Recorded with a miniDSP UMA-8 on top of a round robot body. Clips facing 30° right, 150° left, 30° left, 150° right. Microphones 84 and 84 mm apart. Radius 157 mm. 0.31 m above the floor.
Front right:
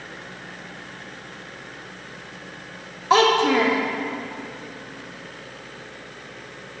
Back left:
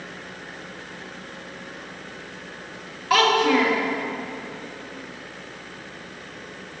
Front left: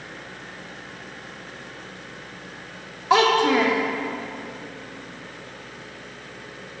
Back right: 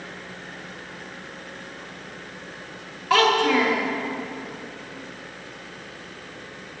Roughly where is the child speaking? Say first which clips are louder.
Front right 2 dB, front left 1 dB; ahead.